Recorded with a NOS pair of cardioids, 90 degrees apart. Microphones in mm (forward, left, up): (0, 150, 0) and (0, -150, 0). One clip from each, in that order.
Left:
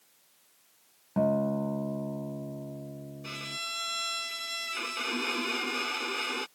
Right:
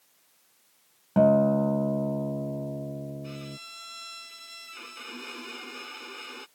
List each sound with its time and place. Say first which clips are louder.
1.2 s a guitar: right 7 dB; 45° right
3.2 s a violin: left 6 dB; 60° left